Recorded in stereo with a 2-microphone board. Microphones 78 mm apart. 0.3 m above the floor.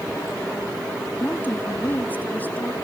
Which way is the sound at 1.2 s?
25° left (ahead or behind).